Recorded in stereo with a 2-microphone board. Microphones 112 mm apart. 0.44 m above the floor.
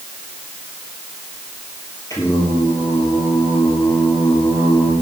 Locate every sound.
2.1 s singing: 30° left (ahead or behind), 8 m